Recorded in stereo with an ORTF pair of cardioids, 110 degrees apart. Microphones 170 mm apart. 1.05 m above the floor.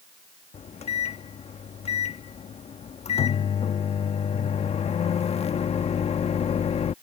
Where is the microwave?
40° left.